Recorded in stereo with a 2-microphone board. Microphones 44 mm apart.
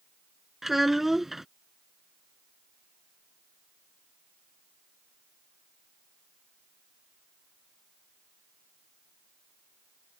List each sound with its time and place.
0.6 s a child speaking: 5° right (ahead or behind)